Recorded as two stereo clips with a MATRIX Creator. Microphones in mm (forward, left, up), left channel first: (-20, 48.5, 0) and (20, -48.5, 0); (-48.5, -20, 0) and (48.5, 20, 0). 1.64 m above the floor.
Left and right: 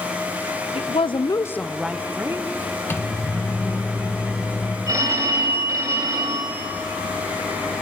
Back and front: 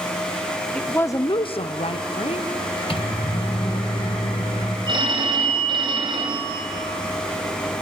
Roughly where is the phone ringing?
Ahead.